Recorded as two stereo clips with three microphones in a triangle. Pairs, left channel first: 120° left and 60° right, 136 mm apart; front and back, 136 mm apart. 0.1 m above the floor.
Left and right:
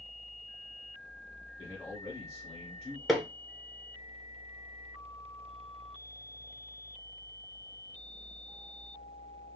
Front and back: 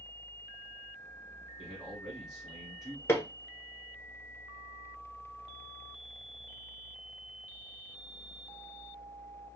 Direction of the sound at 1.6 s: 90° left.